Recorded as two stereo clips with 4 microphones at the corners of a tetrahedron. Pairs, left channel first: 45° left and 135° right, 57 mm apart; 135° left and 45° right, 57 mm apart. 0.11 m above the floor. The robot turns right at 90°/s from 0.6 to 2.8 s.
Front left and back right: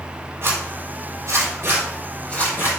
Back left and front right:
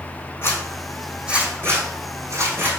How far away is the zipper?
About 4.5 m.